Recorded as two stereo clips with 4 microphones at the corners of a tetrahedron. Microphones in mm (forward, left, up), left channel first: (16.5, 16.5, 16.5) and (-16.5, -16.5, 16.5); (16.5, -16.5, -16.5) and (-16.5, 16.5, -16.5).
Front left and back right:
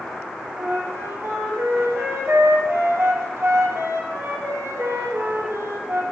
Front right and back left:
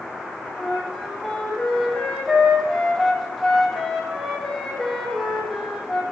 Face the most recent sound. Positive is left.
turn(degrees=-135)